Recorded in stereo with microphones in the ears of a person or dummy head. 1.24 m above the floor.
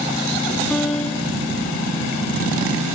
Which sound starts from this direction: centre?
A piano, at 0.7 s.